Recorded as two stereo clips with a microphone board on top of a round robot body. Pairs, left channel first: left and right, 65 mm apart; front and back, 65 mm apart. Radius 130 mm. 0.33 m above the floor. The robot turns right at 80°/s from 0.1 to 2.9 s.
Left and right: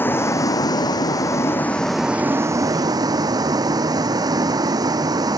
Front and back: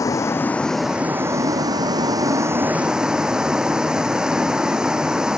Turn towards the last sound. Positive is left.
turn(degrees=-100)